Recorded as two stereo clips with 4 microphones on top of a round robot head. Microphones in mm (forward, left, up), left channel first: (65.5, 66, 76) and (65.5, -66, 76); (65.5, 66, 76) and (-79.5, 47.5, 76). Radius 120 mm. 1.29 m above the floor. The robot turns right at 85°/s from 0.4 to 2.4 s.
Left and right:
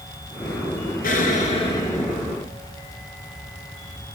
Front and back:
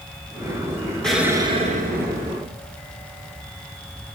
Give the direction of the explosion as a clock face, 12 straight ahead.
9 o'clock.